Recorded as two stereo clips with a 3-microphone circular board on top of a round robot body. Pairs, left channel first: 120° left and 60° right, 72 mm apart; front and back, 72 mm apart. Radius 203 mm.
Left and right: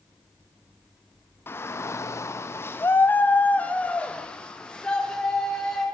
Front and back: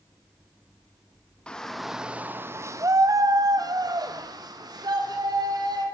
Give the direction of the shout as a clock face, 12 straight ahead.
10 o'clock.